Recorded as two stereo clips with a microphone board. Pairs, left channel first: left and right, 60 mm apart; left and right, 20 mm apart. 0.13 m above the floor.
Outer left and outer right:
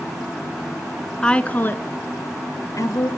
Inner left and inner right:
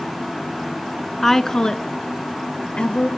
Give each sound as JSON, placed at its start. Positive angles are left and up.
{"t": 1.2, "sound": "a woman speaking", "side_deg": 15, "distance_m": 1.1}